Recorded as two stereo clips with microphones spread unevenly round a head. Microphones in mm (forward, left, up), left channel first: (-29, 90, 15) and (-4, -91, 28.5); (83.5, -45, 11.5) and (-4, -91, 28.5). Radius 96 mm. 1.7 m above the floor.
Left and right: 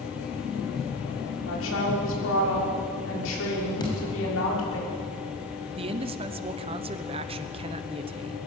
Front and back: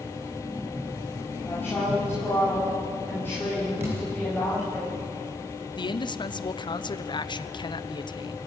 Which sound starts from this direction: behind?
A thud, at 3.8 s.